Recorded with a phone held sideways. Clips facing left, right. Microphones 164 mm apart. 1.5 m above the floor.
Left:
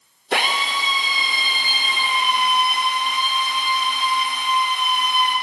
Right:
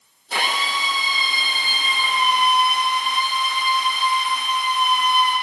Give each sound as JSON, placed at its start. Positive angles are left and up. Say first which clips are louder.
{"t": 0.3, "sound": "a drill", "louder": "left 2 dB", "side_deg": 80, "distance_m": 5.5}